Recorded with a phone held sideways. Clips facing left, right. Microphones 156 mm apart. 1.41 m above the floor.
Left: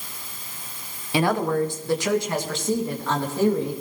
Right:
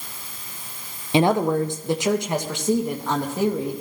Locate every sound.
1.1 s a woman speaking: 25° right (ahead or behind), 0.8 m; by 3.8 s 15° right (ahead or behind), 3 m